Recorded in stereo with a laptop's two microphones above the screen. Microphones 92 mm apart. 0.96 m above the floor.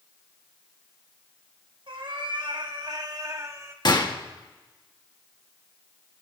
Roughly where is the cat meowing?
Right.